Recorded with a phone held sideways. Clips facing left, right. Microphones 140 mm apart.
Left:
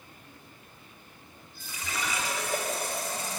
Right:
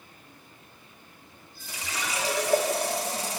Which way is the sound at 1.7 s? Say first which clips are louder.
Even; 75° right (ahead or behind).